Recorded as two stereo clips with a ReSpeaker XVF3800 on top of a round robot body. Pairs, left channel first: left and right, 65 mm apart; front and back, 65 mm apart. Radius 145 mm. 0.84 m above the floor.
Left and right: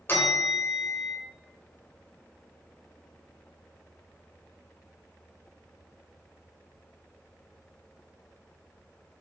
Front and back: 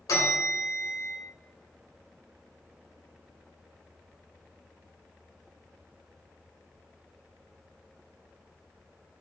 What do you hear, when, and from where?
0.1 s a bell: 30° left, 2.5 m